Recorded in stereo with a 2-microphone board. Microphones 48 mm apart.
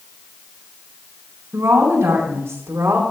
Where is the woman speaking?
85° right, 4.5 m; by 3.0 s 75° right (ahead or behind), 4.5 m.